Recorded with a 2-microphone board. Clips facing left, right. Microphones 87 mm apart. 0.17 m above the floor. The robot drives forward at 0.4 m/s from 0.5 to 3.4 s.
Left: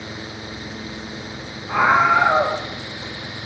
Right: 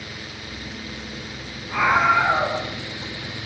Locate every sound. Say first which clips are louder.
1.7 s a scream: left 3 dB; 75° left (ahead or behind), 8.5 m; by 2.6 s 70° left (ahead or behind), 8.5 m